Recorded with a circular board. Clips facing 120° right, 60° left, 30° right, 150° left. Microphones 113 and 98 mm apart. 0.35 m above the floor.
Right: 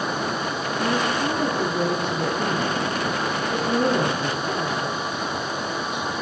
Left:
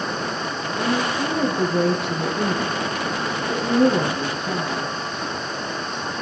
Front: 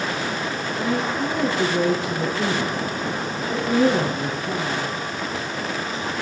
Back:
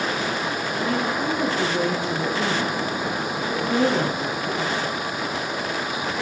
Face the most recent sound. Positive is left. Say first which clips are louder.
# left 1 dB, front 1 dB
turn(degrees=70)